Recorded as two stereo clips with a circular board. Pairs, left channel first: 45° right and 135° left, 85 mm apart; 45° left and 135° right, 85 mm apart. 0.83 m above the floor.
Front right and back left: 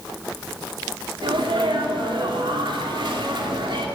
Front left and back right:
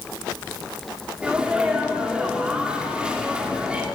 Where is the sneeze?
150° left, 2.5 m.